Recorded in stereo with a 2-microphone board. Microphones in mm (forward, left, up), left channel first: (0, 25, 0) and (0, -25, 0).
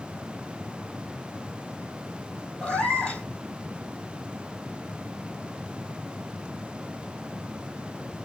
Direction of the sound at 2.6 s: 15° left (ahead or behind).